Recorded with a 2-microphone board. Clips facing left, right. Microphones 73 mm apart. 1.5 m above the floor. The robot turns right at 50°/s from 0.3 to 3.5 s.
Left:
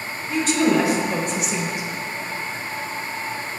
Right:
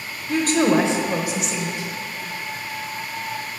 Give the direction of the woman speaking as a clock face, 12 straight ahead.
2 o'clock.